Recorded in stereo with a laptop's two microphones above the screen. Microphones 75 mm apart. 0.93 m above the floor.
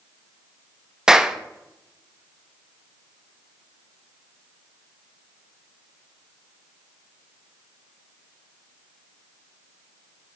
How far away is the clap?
About 0.6 m.